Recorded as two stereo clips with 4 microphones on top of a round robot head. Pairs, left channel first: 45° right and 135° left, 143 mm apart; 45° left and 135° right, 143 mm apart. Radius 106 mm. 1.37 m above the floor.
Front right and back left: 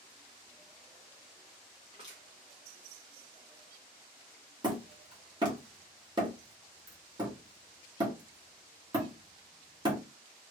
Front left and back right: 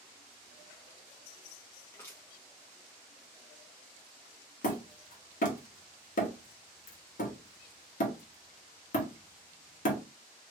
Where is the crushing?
105° left, 0.7 m.